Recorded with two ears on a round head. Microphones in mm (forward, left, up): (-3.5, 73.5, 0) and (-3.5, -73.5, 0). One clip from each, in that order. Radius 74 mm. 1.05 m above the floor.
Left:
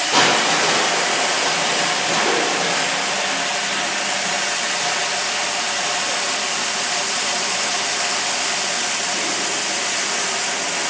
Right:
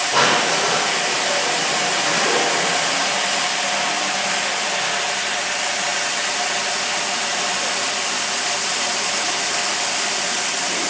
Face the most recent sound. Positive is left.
turn(degrees=70)  # may be behind; listen again after turning